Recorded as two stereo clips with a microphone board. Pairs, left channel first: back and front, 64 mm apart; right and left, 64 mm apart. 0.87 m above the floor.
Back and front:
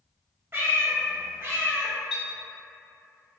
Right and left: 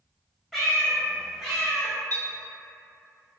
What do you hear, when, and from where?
0.5 s a cat meowing: 5° right, 0.8 m
2.1 s a clink: 85° left, 1.2 m